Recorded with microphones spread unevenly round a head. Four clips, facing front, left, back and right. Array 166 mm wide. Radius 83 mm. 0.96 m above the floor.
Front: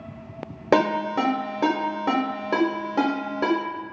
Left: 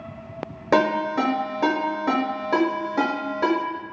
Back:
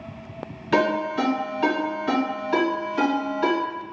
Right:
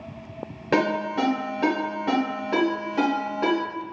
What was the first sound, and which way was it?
A ringtone, 15° left.